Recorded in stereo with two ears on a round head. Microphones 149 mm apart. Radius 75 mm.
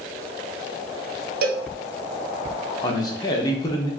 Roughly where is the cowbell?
Right.